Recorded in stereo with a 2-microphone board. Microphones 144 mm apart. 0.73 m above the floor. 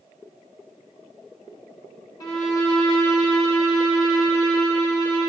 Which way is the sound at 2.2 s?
25° left (ahead or behind).